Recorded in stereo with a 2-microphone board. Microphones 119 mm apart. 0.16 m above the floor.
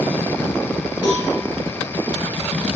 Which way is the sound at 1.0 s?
35° left (ahead or behind).